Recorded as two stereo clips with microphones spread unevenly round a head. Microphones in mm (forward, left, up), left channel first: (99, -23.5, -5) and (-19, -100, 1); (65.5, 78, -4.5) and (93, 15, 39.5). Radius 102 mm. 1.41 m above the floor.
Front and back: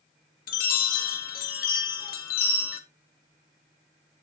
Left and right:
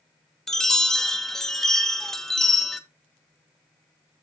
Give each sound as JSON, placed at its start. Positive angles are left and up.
{"t": 0.5, "sound": "a chime", "azimuth_deg": 45, "distance_m": 1.0}